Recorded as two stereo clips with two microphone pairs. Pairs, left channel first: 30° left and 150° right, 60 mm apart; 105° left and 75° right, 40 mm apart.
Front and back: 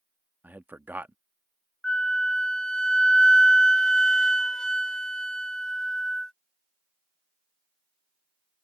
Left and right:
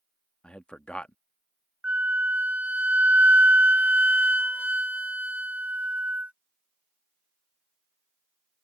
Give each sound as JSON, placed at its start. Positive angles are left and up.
{"t": 0.4, "sound": "a man speaking", "azimuth_deg": 160}
{"t": 1.8, "sound": "a flute", "azimuth_deg": -45}